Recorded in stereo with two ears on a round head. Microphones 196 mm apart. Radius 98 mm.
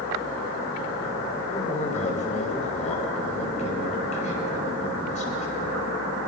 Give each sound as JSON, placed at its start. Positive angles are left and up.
{"t": 1.5, "sound": "a man speaking", "side_deg": 35, "distance_m": 6.0}